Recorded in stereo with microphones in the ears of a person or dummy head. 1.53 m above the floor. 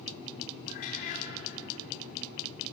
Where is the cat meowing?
50° left (ahead or behind), 3.5 m.